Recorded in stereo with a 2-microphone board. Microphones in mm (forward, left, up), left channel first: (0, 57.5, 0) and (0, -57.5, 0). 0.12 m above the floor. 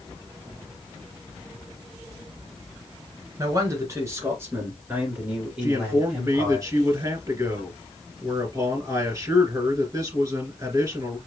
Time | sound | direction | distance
3.4 | a man speaking | 30° right (ahead or behind) | 1.9 m
5.6 | a man speaking | 30° right (ahead or behind) | 2.0 m